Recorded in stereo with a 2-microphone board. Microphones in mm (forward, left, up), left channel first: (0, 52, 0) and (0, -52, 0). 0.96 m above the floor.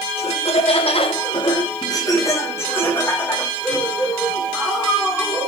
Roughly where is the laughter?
Left.